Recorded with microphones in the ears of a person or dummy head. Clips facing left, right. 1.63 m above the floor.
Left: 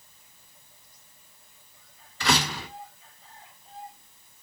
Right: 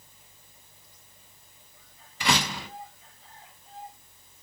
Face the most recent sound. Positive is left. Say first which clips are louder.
# left 1 dB
turn(degrees=-15)  # may be behind; listen again after turning